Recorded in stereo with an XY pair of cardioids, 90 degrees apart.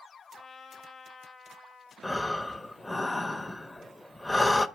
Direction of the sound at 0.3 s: 45° left.